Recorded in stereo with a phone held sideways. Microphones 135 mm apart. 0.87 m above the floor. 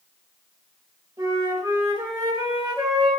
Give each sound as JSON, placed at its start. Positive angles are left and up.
{"t": 1.2, "sound": "a flute", "side_deg": -30, "distance_m": 0.9}